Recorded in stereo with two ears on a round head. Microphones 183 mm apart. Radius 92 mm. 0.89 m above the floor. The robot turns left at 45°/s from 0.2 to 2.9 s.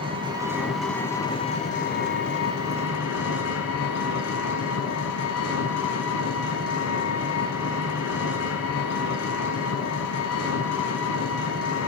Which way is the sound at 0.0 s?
155° right.